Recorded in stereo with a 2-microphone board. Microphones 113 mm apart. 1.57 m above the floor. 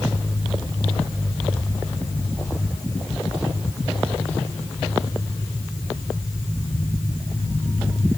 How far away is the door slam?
I don't hear a door slam.